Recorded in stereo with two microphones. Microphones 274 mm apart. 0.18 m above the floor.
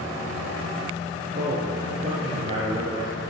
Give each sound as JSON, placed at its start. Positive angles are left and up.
{"t": 1.4, "sound": "a man speaking", "side_deg": -30, "distance_m": 3.0}